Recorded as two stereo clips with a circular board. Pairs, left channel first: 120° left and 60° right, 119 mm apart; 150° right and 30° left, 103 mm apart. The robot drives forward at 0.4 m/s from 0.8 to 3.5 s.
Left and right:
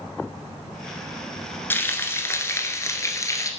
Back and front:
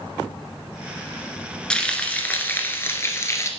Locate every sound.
1.7 s frying: 145° left, 1.5 m; by 3.5 s 165° left, 1.8 m